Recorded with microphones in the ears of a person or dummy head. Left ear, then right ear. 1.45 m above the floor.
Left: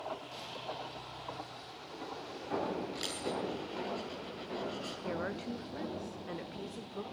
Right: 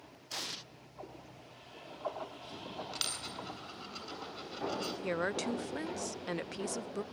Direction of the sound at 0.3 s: 60° right (ahead or behind).